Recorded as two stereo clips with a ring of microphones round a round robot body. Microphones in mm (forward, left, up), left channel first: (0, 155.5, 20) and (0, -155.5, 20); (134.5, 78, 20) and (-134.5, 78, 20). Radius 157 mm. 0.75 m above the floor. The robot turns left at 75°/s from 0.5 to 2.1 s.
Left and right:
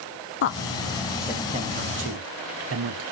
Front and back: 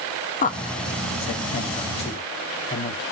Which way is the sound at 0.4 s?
50° left.